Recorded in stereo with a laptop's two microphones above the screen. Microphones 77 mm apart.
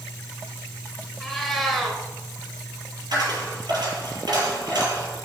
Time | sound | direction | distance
1.2 | a cat meowing | 5° left (ahead or behind) | 1.7 m
3.1 | a dropped coin | 65° right (ahead or behind) | 4 m